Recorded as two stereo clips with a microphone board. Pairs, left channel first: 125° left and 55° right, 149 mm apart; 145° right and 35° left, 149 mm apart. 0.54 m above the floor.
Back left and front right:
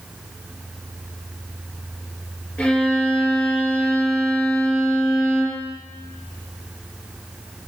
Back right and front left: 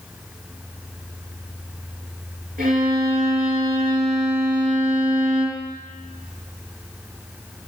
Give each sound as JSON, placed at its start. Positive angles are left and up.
{"t": 2.6, "sound": "a violin", "azimuth_deg": 45, "distance_m": 6.0}